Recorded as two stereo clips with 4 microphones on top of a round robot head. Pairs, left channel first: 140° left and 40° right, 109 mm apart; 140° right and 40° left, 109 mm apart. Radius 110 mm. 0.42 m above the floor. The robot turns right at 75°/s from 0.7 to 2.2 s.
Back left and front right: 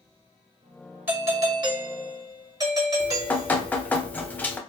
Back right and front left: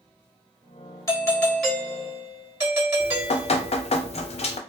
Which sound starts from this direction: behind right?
Dripping, at 3.0 s.